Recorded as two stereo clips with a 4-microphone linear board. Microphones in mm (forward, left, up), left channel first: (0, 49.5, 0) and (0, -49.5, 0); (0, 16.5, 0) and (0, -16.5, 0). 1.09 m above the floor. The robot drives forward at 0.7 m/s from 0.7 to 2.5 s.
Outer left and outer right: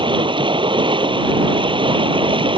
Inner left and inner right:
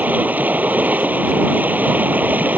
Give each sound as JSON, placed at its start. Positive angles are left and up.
{"t": 0.0, "sound": "running water", "side_deg": -55}